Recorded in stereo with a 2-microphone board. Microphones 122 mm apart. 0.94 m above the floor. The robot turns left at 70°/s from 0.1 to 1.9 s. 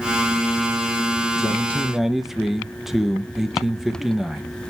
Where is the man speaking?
35° left, 0.6 m; by 4.6 s 5° right, 0.6 m.